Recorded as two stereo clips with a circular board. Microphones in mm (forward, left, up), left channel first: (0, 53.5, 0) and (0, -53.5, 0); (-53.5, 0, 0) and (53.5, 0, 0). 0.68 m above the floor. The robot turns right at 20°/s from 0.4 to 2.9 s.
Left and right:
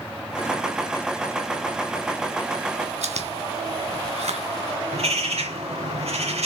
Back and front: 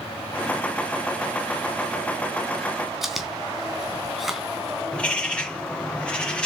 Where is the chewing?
90° right, 3 m.